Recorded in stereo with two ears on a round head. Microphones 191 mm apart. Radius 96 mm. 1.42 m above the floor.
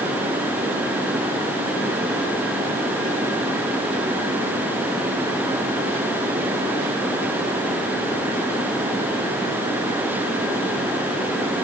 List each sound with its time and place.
Only background noise.